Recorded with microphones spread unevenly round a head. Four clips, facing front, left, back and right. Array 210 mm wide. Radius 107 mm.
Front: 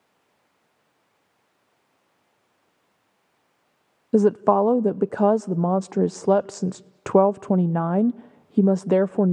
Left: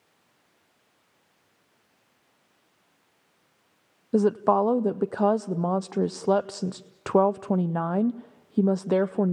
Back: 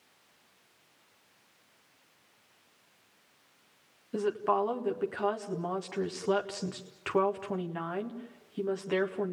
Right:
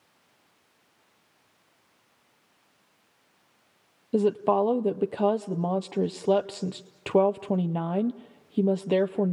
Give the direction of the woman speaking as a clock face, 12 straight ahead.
12 o'clock.